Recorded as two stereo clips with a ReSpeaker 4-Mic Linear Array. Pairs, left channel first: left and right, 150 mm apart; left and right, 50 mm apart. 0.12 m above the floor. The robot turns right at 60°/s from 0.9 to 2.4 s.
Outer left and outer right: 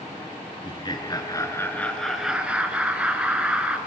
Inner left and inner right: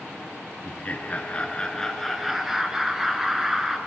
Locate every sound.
0.6 s laughter: 105° left, 1.2 m; by 3.8 s 165° right, 1.2 m